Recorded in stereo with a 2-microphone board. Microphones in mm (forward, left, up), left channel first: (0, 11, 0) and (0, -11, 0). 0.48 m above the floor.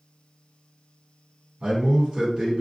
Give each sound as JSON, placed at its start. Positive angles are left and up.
{"t": 1.6, "sound": "a man speaking", "side_deg": -45, "distance_m": 1.6}